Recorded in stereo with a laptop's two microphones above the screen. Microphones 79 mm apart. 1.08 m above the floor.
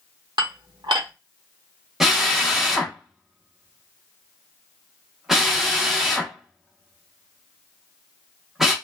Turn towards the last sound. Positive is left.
turn(degrees=-5)  # may be behind; listen again after turning